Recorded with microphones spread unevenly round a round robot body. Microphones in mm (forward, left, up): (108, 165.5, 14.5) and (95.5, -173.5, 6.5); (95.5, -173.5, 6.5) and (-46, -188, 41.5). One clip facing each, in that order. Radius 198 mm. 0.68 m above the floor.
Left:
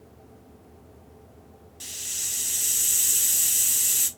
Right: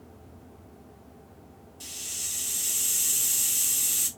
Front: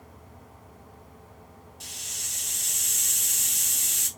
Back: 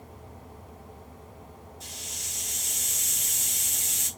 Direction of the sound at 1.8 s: 35° left.